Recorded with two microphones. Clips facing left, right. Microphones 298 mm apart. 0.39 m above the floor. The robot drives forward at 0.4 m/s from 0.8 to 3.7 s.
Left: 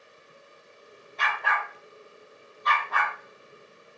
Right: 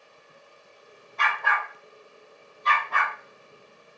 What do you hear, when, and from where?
1.2 s a dog barking: 55° right (ahead or behind), 0.9 m; by 3.1 s 30° right (ahead or behind), 1.5 m